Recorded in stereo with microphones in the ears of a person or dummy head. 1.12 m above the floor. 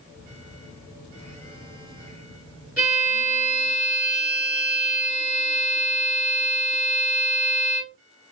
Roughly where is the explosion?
I don't hear an explosion.